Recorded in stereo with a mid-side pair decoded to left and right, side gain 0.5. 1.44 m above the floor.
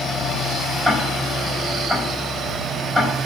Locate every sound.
0.8 s ticking: straight ahead, 4.5 m